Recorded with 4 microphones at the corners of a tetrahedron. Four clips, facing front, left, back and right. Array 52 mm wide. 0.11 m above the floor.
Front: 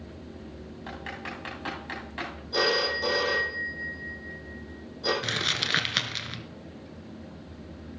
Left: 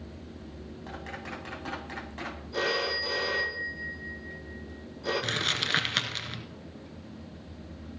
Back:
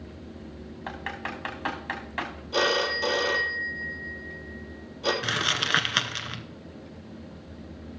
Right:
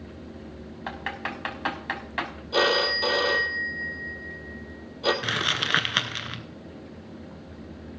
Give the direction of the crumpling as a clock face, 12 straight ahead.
4 o'clock.